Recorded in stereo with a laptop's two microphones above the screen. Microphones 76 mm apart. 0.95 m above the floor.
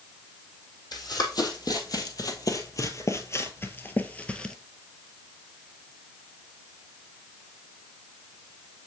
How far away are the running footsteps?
About 2.0 m.